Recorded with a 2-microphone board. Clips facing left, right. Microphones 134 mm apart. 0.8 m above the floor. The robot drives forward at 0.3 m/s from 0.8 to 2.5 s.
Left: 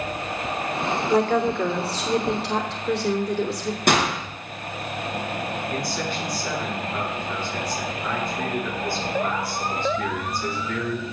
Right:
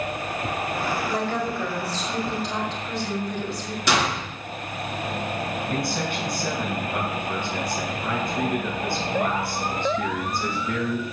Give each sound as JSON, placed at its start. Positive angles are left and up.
{"t": 1.1, "sound": "a woman speaking", "side_deg": 60, "distance_m": 3.0}
{"t": 3.9, "sound": "a gunshot", "side_deg": 50, "distance_m": 3.5}
{"t": 5.7, "sound": "a man speaking", "side_deg": -45, "distance_m": 5.0}